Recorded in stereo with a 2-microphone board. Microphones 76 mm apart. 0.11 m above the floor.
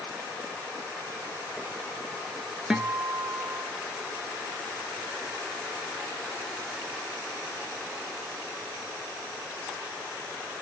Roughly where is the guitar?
Centre.